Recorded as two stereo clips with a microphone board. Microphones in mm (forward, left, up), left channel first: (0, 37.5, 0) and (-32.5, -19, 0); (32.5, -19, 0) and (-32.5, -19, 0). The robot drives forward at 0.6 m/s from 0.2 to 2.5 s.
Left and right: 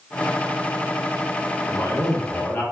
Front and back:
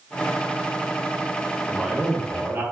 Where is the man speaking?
100° left, 1.2 m; by 2.6 s 120° left, 1.3 m.